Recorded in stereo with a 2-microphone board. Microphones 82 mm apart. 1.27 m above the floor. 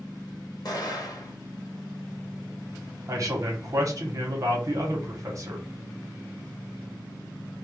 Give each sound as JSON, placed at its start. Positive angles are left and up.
{"t": 0.7, "sound": "an explosion", "side_deg": 55, "distance_m": 1.0}
{"t": 3.1, "sound": "a man speaking", "side_deg": -45, "distance_m": 1.0}